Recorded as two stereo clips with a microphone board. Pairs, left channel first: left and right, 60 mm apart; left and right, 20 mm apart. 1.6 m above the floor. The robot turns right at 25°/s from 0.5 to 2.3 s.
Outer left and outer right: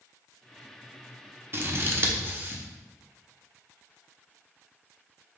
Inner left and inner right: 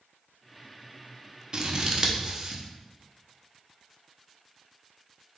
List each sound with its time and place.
1.5 s scissors: 45° right (ahead or behind), 0.6 m; by 2.6 s 35° right (ahead or behind), 0.6 m